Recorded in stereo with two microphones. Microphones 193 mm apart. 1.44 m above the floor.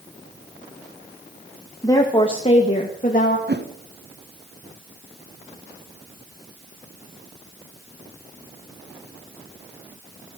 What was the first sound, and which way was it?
A woman speaking, 15° left (ahead or behind).